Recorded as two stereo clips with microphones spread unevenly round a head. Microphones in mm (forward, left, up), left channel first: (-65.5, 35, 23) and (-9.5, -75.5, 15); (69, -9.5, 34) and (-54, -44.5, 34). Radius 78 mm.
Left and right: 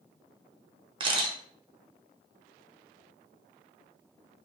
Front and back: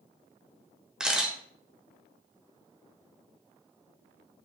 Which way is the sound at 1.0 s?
80° right.